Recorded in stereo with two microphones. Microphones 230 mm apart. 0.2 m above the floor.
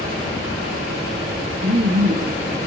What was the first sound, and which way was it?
Laughter, 50° right (ahead or behind).